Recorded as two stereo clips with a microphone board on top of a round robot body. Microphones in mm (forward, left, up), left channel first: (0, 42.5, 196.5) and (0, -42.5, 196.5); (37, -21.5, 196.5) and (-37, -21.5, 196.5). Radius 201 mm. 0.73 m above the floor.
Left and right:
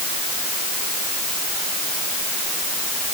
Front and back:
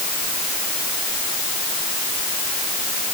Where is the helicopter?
I don't hear a helicopter.